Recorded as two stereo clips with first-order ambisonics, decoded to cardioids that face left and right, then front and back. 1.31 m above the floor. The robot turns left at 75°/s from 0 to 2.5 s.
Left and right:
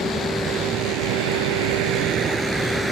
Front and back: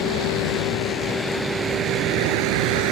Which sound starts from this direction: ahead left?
A vehicle, at 0.0 s.